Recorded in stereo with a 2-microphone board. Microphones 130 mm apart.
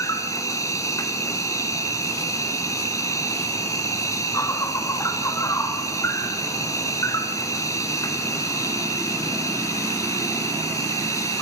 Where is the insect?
25° left (ahead or behind), 1.6 m.